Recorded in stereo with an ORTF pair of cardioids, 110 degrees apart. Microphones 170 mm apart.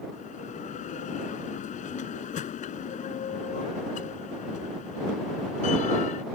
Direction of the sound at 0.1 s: 50° left.